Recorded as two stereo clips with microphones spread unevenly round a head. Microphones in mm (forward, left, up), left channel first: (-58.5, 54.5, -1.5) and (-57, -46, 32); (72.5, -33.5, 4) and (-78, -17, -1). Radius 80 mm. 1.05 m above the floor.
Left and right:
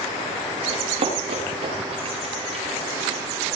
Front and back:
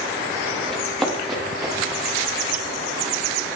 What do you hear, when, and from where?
0.7 s running footsteps: 95° right, 10 m; by 2.6 s 105° right, 11.5 m